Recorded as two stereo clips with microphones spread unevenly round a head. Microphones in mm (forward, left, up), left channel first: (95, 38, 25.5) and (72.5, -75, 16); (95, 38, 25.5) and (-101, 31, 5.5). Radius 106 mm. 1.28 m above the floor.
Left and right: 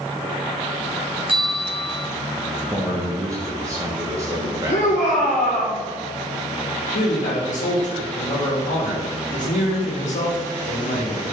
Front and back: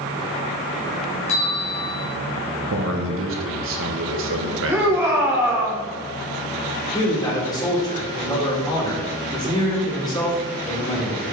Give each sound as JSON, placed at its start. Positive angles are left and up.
{"t": 1.3, "sound": "a bell", "azimuth_deg": -60, "distance_m": 2.5}
{"t": 2.7, "sound": "a man speaking", "azimuth_deg": -170, "distance_m": 1.4}
{"t": 4.7, "sound": "a shout", "azimuth_deg": 105, "distance_m": 1.7}
{"t": 6.9, "sound": "a man speaking", "azimuth_deg": 75, "distance_m": 2.5}